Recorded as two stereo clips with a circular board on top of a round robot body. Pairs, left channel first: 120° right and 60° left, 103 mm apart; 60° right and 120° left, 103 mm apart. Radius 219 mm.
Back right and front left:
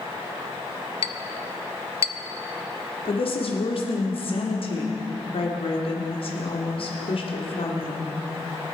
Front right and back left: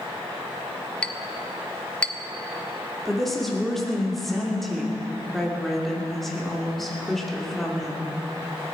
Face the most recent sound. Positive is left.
turn(degrees=-150)